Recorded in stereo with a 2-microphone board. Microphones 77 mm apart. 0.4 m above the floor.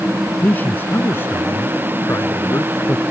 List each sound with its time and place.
0.4 s a man speaking: 25° left (ahead or behind); by 3.0 s 40° left (ahead or behind)